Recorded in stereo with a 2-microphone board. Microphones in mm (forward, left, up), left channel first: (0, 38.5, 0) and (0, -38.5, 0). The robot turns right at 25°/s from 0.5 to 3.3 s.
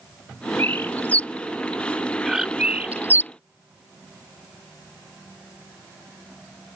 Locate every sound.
0.6 s a bird: 30° left (ahead or behind); by 3.3 s 30° right (ahead or behind)